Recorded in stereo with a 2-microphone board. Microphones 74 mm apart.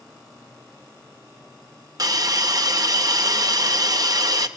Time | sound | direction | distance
2.0 | a hiss | 55° right (ahead or behind) | 0.6 m